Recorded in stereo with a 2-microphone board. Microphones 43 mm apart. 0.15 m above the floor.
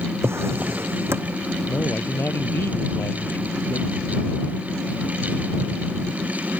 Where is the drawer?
75° right (ahead or behind).